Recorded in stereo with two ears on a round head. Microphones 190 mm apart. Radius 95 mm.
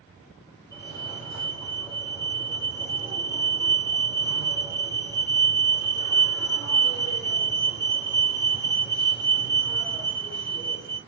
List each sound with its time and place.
0.7 s a fire alarm: 15° left (ahead or behind), 2.5 m